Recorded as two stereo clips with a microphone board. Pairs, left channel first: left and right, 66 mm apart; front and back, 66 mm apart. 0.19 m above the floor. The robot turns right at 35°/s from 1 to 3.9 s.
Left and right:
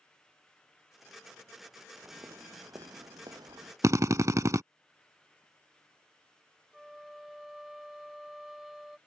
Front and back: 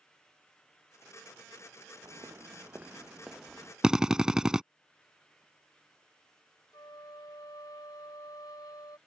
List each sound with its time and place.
2.0 s footsteps: 145° right; by 3.7 s 80° right
3.8 s a drill: 105° right
6.7 s a flute: 5° right